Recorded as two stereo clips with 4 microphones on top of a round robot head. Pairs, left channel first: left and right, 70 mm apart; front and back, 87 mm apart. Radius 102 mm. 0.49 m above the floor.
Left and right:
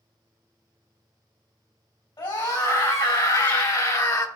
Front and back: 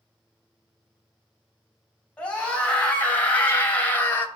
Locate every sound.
2.2 s a scream: 75° left, 4.5 m; by 4.3 s 65° left, 2.5 m